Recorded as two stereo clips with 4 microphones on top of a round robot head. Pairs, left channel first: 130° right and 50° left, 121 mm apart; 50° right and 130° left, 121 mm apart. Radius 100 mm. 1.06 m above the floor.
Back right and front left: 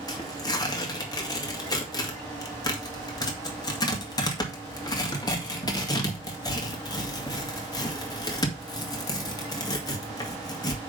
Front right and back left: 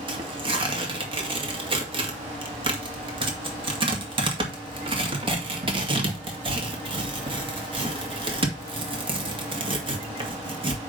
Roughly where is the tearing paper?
Behind.